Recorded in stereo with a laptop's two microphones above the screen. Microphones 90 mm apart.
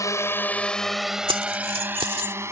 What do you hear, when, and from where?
0.0 s a drone: 35° left (ahead or behind); by 2.5 s 30° right (ahead or behind)
1.3 s keys jangling: 80° right